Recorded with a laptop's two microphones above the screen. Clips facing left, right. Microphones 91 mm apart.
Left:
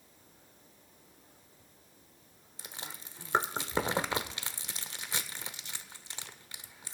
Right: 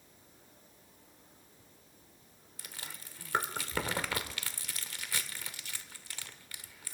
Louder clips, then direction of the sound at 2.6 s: Left 3 dB; 25° left (ahead or behind).